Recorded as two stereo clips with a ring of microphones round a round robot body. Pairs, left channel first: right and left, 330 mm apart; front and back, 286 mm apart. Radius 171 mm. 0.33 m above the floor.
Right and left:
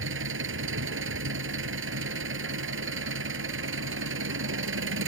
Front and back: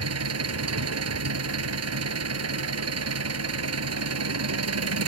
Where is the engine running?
145° left.